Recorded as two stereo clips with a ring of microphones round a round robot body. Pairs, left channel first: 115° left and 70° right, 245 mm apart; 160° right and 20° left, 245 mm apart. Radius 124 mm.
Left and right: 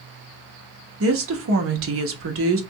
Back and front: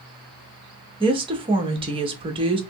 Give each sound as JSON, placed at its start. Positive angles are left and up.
{"t": 1.0, "sound": "a woman speaking", "azimuth_deg": -45, "distance_m": 1.0}